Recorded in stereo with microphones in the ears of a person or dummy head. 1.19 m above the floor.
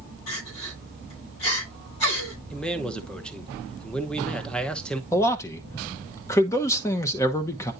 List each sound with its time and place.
0.3 s crying: 85° left, 8.5 m
2.5 s a man speaking: 5° left (ahead or behind), 0.9 m
5.1 s a man speaking: 15° left (ahead or behind), 1.0 m